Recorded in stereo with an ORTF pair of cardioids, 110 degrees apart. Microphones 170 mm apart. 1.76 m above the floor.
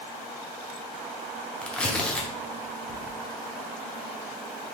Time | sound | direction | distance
1.6 | tearing paper | 5° left | 0.7 m